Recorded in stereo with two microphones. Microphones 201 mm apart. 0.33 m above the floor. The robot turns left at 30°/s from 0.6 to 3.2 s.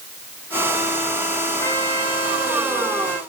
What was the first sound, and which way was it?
A trumpet, 165° left.